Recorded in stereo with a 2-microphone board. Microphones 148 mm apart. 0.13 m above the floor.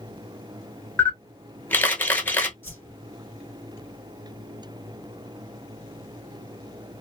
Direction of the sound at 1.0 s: 15° left (ahead or behind).